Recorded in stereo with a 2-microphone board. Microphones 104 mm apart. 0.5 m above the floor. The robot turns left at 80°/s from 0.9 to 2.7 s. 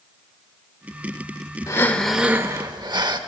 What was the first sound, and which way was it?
Breathing, 35° left.